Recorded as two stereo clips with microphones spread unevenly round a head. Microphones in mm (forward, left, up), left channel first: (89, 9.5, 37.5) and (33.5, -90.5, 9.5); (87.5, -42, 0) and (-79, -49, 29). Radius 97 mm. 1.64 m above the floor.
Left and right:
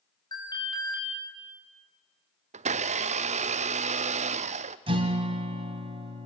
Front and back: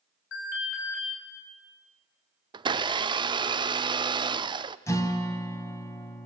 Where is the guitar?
75° right, 2.5 m.